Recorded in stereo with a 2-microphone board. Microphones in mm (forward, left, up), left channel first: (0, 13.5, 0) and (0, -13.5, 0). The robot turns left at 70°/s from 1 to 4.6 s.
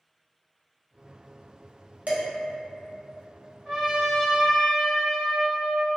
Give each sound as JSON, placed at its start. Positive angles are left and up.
{"t": 2.1, "sound": "dishes clattering", "side_deg": -60, "distance_m": 0.8}
{"t": 3.6, "sound": "a trumpet", "azimuth_deg": -5, "distance_m": 1.1}